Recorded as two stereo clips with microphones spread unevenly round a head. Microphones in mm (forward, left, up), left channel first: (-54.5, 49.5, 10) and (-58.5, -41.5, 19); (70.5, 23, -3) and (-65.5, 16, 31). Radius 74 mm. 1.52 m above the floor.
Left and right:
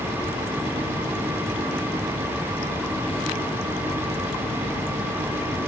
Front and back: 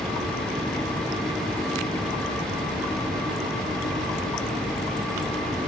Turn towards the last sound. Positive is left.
No sound to turn to.